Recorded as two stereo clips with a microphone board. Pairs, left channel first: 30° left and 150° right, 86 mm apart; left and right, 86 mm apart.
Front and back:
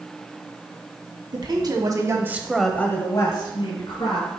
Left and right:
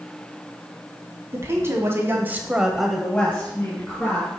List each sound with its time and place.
1.3 s a woman speaking: 140° right, 2.0 m; by 4.3 s 25° left, 2.5 m